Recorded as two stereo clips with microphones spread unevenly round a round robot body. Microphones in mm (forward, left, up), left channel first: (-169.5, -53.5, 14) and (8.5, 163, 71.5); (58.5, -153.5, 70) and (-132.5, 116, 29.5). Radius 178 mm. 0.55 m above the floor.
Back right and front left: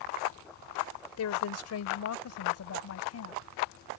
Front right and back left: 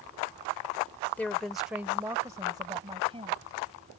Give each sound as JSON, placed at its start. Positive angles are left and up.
{"t": 1.2, "sound": "a woman speaking", "azimuth_deg": -145}